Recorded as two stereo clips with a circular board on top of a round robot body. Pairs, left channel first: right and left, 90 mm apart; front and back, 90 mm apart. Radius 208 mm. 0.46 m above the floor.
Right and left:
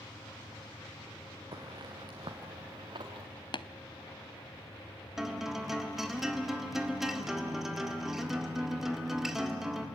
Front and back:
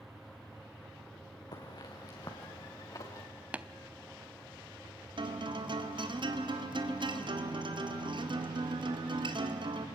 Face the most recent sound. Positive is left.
turn(degrees=175)